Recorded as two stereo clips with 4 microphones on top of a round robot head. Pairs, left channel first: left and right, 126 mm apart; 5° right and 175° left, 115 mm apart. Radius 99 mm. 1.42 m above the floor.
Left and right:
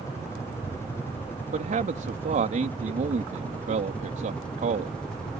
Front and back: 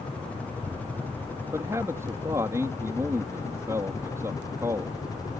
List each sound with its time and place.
0.0 s a helicopter: 55° left; by 5.4 s 10° left
1.5 s a man speaking: 115° right